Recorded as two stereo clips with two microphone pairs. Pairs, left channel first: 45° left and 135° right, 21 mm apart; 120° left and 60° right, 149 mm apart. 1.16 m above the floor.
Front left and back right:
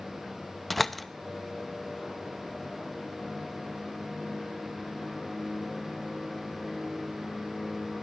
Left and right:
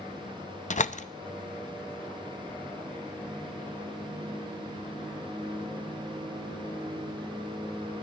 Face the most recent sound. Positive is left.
turn(degrees=120)